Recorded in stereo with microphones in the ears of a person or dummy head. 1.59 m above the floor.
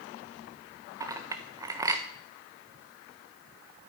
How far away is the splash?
No splash in this recording.